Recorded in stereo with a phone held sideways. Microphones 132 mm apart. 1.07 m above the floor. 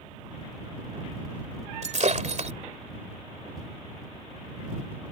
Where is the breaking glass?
60° right (ahead or behind).